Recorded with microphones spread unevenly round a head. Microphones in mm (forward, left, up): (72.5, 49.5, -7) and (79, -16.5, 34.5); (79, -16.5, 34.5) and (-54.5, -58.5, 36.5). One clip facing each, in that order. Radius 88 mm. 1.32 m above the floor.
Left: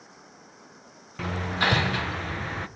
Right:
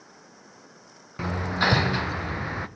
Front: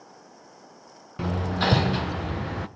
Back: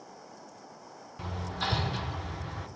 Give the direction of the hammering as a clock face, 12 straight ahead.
12 o'clock.